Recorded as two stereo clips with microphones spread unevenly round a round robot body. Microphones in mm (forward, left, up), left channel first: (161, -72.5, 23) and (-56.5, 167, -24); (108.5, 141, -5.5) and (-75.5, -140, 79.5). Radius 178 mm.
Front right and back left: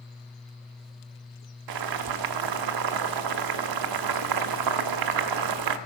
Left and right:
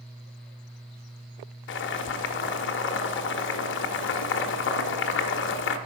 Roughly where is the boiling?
Left.